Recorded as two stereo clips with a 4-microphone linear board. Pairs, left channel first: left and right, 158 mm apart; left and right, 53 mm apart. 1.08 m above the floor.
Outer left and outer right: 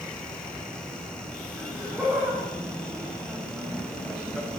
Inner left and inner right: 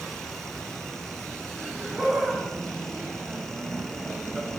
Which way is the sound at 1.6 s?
10° right (ahead or behind).